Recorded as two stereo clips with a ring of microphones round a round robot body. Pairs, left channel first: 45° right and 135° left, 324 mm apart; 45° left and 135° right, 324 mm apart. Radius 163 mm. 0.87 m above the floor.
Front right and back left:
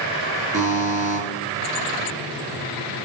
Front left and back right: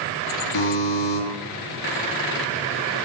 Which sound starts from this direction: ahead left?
A buzzer, at 0.5 s.